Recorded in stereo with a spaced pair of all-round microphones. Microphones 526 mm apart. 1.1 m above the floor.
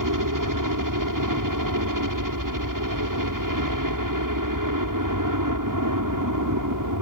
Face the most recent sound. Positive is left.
turn(degrees=-35)  # may be behind; listen again after turning